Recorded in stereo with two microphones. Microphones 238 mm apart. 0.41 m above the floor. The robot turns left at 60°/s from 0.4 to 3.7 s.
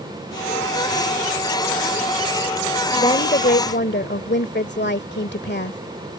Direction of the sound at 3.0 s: 150° left.